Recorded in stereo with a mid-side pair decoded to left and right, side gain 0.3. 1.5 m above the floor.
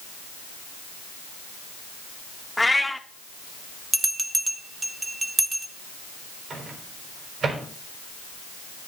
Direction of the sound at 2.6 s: 15° left.